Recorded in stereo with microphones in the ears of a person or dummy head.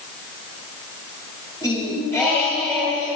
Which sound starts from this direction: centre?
Singing, at 1.6 s.